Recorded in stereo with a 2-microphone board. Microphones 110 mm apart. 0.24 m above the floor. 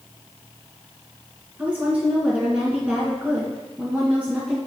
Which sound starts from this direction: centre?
A woman speaking, at 1.6 s.